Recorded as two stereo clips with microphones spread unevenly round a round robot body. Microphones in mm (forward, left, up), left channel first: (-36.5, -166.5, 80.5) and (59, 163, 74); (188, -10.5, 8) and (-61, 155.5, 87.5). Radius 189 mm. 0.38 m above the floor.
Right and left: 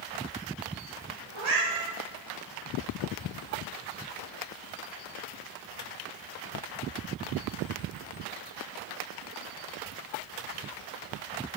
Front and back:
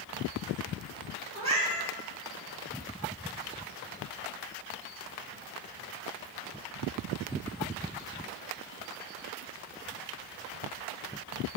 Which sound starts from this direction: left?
A cat meowing, at 1.3 s.